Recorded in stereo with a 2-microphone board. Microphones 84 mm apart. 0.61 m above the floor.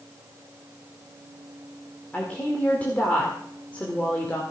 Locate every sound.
2.1 s a woman speaking: 20° left (ahead or behind), 2 m